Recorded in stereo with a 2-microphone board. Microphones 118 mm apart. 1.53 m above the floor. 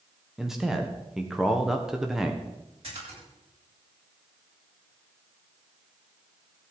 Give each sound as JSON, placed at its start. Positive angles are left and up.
{"t": 0.4, "sound": "a man speaking", "side_deg": -5, "distance_m": 1.3}
{"t": 2.8, "sound": "a splash", "side_deg": -55, "distance_m": 9.5}